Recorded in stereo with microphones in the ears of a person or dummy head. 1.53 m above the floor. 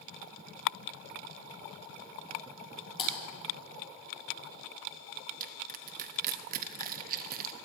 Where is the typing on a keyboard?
40° left (ahead or behind), 5.5 m.